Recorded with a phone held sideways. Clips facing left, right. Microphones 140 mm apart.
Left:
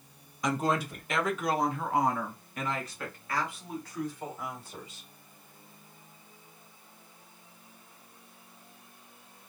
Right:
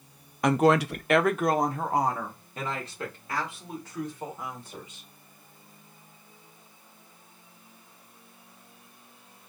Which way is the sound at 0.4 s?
60° right (ahead or behind).